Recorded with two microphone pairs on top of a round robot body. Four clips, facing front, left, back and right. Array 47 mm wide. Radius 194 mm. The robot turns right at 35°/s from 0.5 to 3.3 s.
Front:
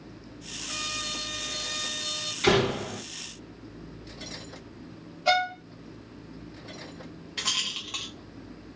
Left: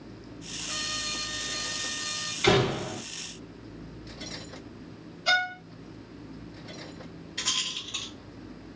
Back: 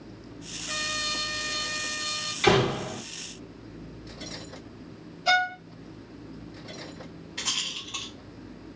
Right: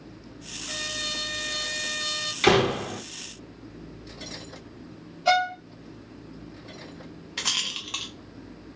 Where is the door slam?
115° right, 1.2 m; by 3.0 s 95° right, 1.2 m.